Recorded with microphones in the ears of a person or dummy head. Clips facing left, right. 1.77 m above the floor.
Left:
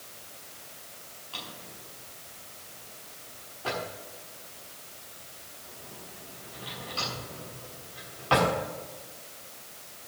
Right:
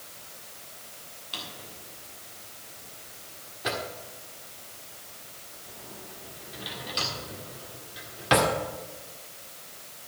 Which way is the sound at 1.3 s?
20° right (ahead or behind).